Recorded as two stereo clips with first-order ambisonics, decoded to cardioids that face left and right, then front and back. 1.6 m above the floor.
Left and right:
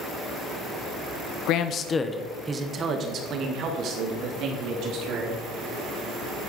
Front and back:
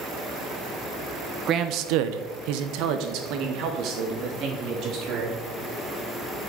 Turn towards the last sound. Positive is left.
turn(degrees=-130)